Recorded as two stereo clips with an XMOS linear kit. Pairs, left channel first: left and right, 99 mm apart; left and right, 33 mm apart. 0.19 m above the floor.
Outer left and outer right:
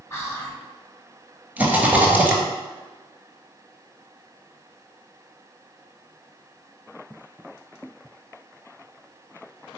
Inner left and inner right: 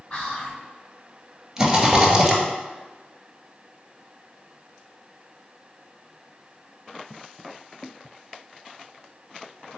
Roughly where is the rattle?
Centre.